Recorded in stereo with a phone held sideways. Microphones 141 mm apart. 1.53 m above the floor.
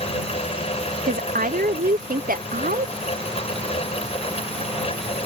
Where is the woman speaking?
80° right.